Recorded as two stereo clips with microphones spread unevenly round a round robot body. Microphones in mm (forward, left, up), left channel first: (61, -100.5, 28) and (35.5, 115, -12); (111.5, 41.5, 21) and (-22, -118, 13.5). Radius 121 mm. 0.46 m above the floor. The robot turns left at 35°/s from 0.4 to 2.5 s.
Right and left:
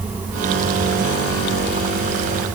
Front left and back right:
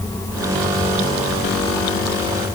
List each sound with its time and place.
Only background noise.